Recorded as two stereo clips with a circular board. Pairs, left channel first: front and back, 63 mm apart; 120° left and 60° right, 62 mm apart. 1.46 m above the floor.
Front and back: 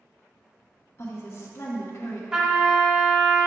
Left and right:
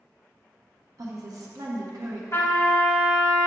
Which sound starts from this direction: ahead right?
A woman speaking, at 1.0 s.